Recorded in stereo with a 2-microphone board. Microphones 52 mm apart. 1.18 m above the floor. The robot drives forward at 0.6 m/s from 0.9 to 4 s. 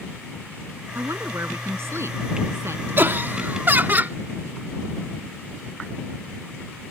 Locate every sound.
0.9 s a woman speaking: 60° right (ahead or behind); by 3.3 s 55° right (ahead or behind)
3.0 s laughter: 45° right (ahead or behind); by 4.2 s 35° right (ahead or behind)